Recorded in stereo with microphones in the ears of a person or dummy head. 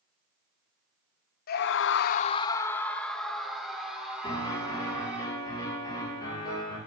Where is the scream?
55° left (ahead or behind), 0.6 m; by 5.2 s 10° right (ahead or behind), 3 m.